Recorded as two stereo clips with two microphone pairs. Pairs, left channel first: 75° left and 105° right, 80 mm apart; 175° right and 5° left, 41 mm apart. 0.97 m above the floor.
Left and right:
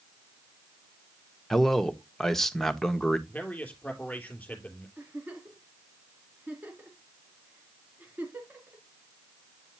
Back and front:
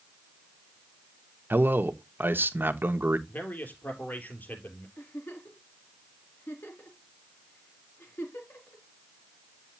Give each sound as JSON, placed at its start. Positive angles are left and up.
{"t": 1.5, "sound": "a man speaking", "azimuth_deg": -10, "distance_m": 1.0}
{"t": 3.3, "sound": "a man speaking", "azimuth_deg": 145, "distance_m": 3.0}
{"t": 5.0, "sound": "a giggle", "azimuth_deg": -170, "distance_m": 2.5}